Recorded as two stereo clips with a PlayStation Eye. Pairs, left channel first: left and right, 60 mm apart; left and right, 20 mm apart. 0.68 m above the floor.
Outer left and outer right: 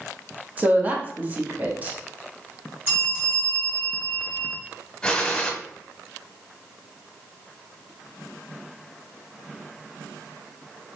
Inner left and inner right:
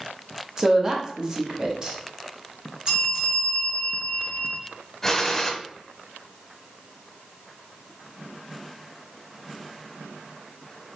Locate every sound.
0.6 s a woman speaking: 25° right (ahead or behind), 0.9 m
2.9 s a bell: 35° right (ahead or behind), 2.5 m
5.0 s a gunshot: 15° left (ahead or behind), 0.7 m